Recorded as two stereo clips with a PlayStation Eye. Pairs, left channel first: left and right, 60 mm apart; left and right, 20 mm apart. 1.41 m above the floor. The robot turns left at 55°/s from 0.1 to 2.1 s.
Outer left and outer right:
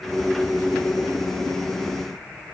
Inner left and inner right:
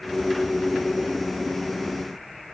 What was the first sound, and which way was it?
Only background noise.